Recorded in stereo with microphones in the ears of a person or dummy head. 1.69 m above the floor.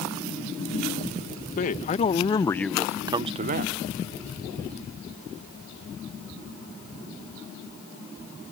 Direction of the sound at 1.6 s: 45° left (ahead or behind).